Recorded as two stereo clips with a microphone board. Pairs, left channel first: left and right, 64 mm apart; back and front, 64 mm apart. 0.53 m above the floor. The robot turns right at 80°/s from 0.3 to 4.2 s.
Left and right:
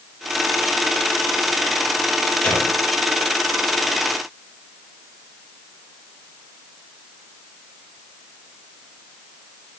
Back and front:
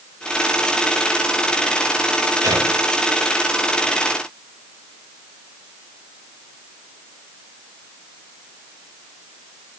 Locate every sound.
2.4 s a gunshot: 15° left, 8 m; by 2.7 s 40° left, 8 m